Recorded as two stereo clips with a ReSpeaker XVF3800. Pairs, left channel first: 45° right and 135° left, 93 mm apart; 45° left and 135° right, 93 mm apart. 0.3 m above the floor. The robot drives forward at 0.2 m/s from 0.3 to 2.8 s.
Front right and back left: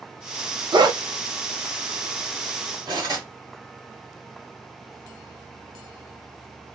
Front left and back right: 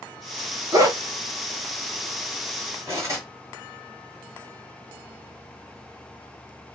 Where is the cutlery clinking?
170° left, 1.4 m.